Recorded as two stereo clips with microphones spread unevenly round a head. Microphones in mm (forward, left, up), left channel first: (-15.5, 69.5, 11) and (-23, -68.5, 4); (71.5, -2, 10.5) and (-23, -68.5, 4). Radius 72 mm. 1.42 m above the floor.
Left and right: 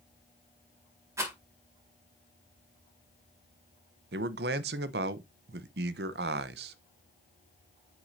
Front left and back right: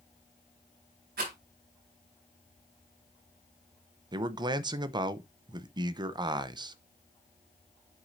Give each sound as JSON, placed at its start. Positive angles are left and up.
{"t": 1.2, "sound": "a rattle", "azimuth_deg": -165, "distance_m": 4.5}
{"t": 4.1, "sound": "a man speaking", "azimuth_deg": -90, "distance_m": 0.8}